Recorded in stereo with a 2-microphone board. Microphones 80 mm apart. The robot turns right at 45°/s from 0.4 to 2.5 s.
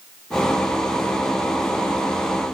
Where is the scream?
I don't hear a scream.